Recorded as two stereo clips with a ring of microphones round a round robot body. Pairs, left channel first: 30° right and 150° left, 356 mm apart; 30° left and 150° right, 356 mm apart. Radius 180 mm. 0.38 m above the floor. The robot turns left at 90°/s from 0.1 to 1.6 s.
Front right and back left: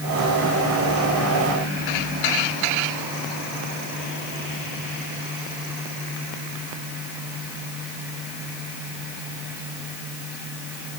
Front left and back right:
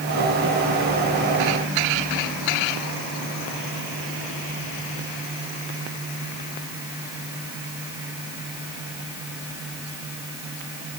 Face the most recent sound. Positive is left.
No sound to turn to.